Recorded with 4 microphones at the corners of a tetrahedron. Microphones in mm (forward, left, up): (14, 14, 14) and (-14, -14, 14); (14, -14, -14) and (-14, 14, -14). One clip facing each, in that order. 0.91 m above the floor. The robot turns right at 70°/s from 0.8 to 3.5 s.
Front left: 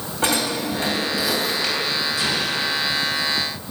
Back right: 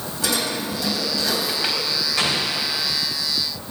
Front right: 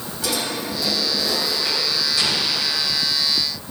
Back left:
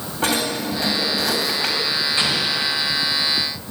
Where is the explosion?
165° right, 2.5 m; by 3.0 s 105° right, 2.5 m.